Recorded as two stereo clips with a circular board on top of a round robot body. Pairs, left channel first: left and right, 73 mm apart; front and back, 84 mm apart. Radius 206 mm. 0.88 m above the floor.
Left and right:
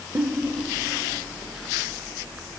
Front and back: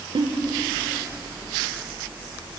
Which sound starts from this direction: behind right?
A giggle, at 0.1 s.